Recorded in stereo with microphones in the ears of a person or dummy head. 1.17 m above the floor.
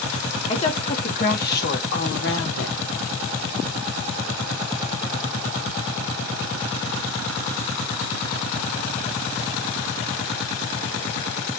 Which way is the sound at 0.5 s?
35° left (ahead or behind).